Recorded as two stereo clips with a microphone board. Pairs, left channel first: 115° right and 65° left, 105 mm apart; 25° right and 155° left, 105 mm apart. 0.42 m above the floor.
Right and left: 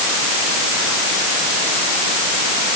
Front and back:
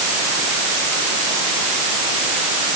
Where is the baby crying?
No baby crying in this recording.